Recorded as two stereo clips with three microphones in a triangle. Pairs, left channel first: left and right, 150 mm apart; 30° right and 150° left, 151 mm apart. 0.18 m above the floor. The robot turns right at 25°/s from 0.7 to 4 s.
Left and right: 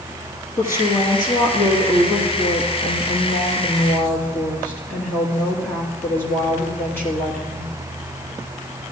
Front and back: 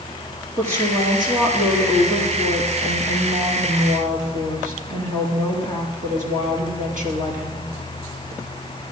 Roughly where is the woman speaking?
Left.